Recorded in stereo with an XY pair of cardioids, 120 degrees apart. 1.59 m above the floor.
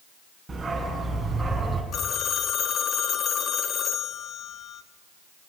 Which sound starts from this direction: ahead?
A dog barking, at 0.5 s.